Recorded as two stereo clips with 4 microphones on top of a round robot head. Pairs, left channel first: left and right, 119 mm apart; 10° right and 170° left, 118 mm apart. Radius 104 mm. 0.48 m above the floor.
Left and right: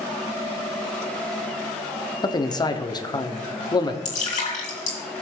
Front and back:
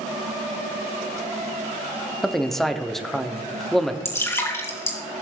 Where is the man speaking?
80° left, 1.0 m.